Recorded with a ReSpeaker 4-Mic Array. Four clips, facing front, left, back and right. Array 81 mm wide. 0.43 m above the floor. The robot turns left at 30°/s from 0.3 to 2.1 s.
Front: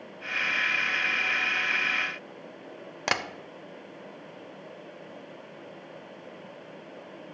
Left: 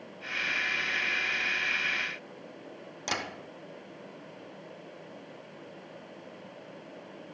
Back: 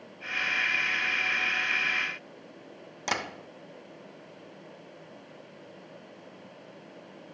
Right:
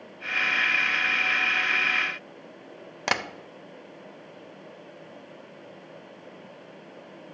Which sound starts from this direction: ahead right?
Tapping, at 3.1 s.